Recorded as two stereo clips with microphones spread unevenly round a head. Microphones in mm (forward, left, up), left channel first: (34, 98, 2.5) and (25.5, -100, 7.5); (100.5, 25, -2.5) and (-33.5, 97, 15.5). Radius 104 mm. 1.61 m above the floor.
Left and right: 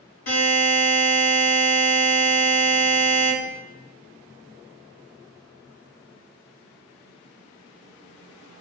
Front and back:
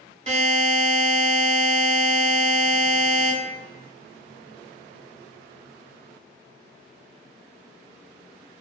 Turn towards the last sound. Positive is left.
turn(degrees=105)